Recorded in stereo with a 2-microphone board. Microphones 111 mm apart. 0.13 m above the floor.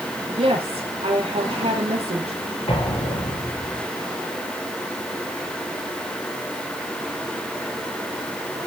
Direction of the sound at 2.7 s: 55° left (ahead or behind).